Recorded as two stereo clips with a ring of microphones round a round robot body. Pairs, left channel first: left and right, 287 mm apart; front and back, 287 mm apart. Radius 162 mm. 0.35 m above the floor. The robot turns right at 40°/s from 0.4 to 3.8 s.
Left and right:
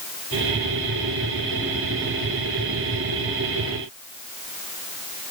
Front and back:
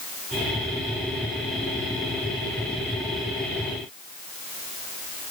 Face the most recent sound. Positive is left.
No sound to turn to.